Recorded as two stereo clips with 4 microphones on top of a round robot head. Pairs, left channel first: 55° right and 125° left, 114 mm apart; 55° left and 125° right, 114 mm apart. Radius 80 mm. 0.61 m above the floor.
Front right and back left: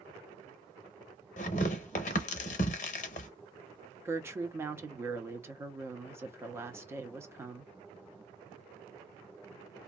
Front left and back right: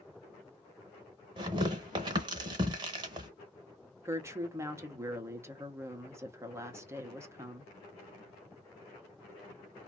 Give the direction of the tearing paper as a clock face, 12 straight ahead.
2 o'clock.